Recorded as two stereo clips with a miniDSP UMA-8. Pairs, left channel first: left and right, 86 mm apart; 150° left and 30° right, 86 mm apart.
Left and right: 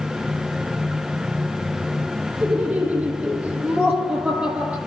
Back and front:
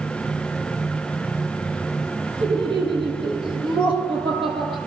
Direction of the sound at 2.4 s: 15° right.